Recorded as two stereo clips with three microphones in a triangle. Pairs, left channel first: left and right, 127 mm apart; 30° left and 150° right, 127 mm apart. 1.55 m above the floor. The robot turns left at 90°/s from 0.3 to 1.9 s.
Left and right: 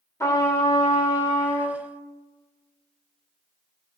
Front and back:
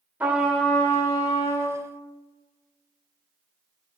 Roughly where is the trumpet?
Behind left.